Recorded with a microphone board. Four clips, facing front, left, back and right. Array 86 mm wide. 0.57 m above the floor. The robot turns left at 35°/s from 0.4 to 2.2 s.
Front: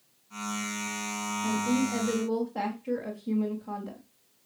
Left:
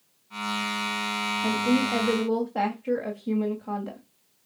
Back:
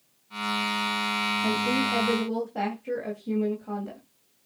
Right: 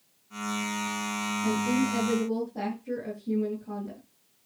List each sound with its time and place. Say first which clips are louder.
1.4 s a woman speaking: left 2 dB, front 1 dB; 125° left, 2.5 m; by 4.0 s 100° left, 2.5 m